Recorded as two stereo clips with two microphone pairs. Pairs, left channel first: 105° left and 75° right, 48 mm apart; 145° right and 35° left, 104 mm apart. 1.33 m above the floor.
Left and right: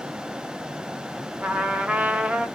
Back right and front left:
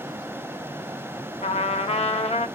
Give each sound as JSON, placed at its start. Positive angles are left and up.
{"t": 1.4, "sound": "a trumpet", "azimuth_deg": -140, "distance_m": 0.5}